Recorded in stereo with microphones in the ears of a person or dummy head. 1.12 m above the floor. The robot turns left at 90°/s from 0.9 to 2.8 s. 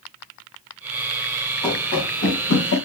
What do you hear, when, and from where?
1.6 s running footsteps: 10° left (ahead or behind), 5.5 m; by 2.8 s 65° left (ahead or behind), 4 m